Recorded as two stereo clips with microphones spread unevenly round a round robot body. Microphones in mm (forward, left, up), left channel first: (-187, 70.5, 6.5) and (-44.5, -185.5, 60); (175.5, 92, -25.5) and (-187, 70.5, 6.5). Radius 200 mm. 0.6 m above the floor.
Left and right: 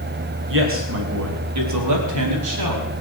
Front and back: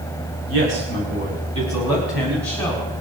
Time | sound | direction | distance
0.5 | a man speaking | 115° right | 3.5 m